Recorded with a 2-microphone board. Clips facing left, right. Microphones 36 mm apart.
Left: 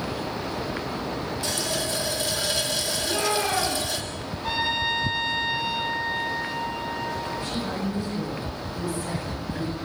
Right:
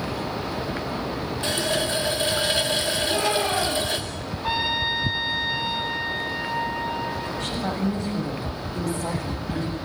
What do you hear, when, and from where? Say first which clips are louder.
1.4 s a running tap: right 6 dB; 35° right (ahead or behind), 2 m
3.0 s a shout: even; 20° right (ahead or behind), 10 m
4.4 s a trumpet: right 1 dB; 20° right (ahead or behind), 4.5 m
7.4 s a woman speaking: right 3 dB; 85° right, 8 m